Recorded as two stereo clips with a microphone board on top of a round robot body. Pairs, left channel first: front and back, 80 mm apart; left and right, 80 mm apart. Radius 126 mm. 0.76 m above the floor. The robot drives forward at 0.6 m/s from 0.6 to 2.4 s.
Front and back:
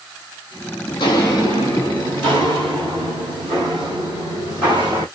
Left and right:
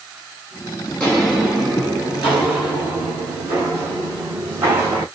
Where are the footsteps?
20° left, 0.8 m; by 5.0 s 155° right, 3 m.